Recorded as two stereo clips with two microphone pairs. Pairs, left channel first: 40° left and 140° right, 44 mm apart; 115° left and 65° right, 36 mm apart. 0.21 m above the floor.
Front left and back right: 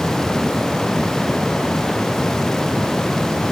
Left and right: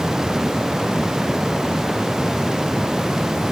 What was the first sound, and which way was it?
Only background noise.